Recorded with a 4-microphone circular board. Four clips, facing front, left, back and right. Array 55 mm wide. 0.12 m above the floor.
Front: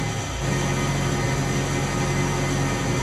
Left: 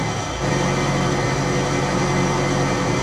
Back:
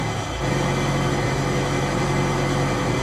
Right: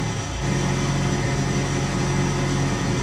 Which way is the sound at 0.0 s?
120° left.